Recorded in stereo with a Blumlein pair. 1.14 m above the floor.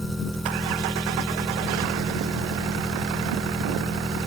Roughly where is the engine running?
Ahead.